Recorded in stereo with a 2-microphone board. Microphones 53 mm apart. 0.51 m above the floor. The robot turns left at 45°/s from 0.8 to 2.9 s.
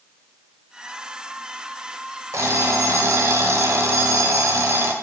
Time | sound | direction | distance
2.3 | an alarm clock | 70° right (ahead or behind) | 1.5 m